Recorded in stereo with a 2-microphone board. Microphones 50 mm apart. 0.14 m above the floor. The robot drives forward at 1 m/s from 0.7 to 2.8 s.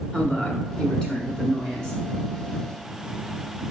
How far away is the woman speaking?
About 1.2 m.